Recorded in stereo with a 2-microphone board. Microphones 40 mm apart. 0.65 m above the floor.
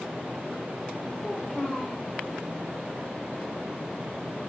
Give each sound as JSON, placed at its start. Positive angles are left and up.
{"t": 1.2, "sound": "a child speaking", "side_deg": 35, "distance_m": 1.4}